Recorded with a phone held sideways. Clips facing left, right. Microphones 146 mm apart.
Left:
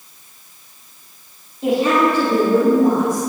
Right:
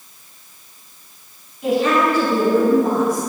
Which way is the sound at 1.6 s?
35° left (ahead or behind).